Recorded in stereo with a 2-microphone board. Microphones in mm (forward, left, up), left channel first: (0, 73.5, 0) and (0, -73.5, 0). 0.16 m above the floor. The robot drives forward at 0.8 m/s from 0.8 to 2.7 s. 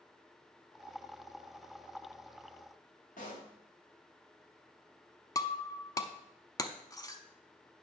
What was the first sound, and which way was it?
A pop, 65° left (ahead or behind).